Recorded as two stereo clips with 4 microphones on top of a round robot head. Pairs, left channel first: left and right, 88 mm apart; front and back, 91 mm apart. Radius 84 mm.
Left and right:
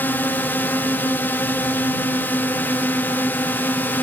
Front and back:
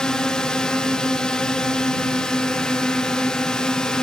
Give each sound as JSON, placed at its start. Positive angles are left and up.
{"t": 0.0, "sound": "a drone", "azimuth_deg": 70}